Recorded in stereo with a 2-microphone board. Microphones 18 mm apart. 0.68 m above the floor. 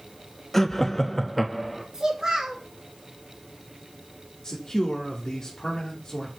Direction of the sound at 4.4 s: 40° left (ahead or behind).